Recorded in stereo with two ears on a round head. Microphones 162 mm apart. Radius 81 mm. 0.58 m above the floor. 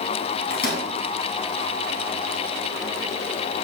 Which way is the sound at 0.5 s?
55° left (ahead or behind).